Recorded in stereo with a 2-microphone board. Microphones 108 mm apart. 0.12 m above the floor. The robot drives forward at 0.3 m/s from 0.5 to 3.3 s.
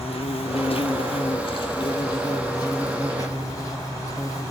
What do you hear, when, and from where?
0.0 s an insect: 65° left (ahead or behind), 0.8 m; by 4.5 s 35° left (ahead or behind), 1.3 m